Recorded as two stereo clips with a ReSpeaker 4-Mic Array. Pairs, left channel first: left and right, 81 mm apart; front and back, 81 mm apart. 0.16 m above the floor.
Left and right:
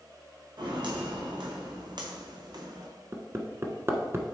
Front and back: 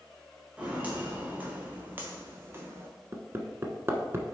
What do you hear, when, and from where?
0.6 s footsteps: 105° right, 3 m; by 2.9 s 125° right, 1.6 m
3.1 s hammering: 135° right, 0.9 m